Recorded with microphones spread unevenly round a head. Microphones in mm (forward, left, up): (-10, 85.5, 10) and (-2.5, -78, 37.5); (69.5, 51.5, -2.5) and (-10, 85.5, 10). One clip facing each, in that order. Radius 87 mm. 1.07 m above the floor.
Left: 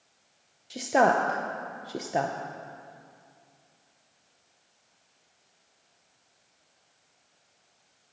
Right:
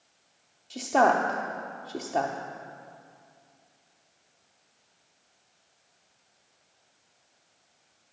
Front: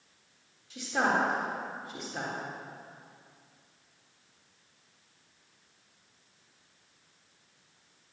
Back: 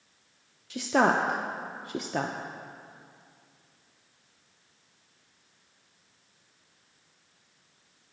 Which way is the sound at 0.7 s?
160° left.